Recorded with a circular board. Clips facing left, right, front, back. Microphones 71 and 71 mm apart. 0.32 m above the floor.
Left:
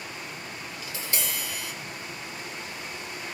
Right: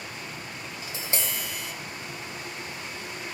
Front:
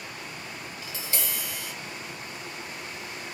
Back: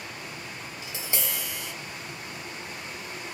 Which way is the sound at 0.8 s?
130° right.